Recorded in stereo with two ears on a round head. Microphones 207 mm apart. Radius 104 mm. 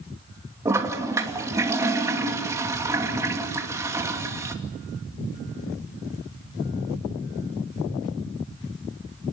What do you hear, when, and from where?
0.7 s a toilet flushing: 15° right (ahead or behind), 2.5 m